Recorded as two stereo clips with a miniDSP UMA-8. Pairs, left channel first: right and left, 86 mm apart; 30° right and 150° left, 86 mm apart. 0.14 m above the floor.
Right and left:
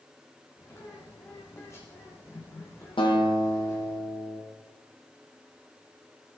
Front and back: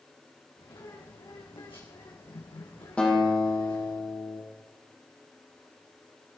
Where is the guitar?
105° right, 4.5 m.